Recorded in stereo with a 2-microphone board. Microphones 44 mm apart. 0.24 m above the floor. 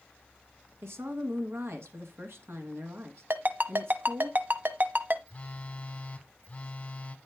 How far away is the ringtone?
About 0.9 m.